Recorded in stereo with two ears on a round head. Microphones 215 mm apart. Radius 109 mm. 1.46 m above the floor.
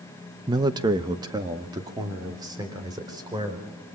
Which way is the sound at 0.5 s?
15° right (ahead or behind).